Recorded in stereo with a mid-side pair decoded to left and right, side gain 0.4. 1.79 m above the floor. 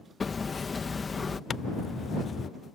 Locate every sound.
0.2 s hammering: 30° left
1.5 s a zipper: 40° left